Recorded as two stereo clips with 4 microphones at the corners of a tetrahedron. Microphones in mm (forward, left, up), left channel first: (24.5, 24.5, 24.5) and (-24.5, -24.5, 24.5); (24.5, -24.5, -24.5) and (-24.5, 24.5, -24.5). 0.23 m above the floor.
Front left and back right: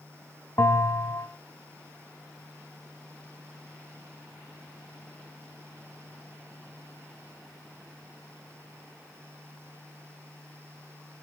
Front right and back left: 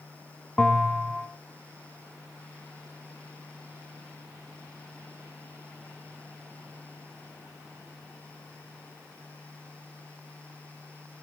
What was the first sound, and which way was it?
A bell, 30° left.